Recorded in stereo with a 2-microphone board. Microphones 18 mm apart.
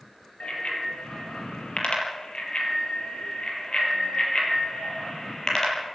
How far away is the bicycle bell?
About 7.5 m.